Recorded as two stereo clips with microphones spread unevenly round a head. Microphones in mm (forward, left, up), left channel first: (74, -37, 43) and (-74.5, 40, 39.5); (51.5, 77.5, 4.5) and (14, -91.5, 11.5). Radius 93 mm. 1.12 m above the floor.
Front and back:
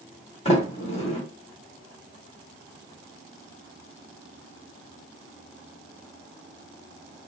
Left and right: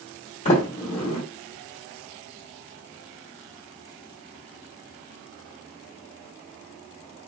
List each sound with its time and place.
0.5 s a sliding door: 30° left, 1.9 m